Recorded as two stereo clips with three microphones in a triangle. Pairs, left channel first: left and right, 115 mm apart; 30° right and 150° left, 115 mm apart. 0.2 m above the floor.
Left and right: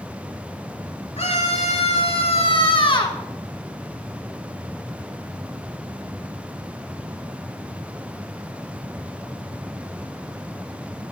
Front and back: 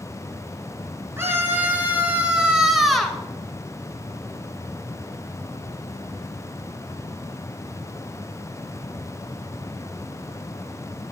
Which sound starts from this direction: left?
A scream, at 1.2 s.